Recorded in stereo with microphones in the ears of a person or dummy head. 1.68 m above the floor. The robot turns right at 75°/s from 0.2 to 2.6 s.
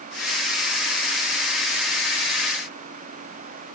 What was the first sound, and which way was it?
Only background noise.